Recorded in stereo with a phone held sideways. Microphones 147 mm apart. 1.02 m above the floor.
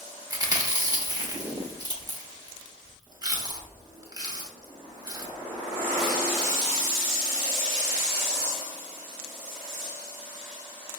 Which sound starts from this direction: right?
Chewing, at 0.3 s.